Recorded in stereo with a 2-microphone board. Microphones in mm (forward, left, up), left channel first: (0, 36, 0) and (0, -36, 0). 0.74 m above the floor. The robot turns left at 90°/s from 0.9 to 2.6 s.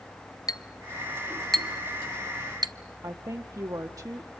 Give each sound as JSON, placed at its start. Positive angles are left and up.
{"t": 0.5, "sound": "a clink", "side_deg": 60, "distance_m": 0.6}
{"t": 3.0, "sound": "a woman speaking", "side_deg": -55, "distance_m": 0.8}